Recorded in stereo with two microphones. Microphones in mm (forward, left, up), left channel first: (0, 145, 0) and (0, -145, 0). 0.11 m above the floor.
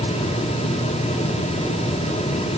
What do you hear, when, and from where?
Only background noise.